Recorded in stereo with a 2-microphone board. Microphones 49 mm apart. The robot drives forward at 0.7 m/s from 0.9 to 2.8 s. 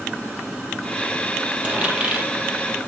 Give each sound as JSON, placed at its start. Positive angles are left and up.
{"t": 1.6, "sound": "a dropped coin", "side_deg": -25, "distance_m": 3.0}